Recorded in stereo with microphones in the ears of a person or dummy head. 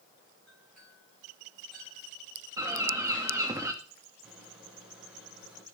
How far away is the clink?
About 9 m.